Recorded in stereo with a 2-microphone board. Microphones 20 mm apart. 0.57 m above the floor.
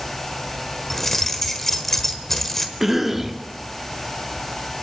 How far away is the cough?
About 1.3 m.